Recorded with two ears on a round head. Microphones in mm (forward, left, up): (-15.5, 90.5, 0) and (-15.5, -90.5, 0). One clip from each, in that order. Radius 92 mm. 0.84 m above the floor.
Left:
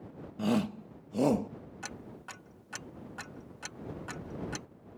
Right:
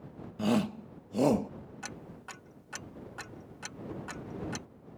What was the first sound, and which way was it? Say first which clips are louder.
A shout: right 1 dB; 10° right (ahead or behind).